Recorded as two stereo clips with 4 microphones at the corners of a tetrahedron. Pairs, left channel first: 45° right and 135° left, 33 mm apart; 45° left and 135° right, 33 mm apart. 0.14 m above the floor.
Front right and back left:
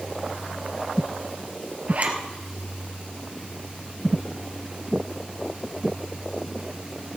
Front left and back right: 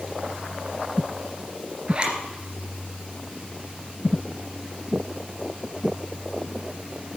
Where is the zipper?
170° left, 2.5 m.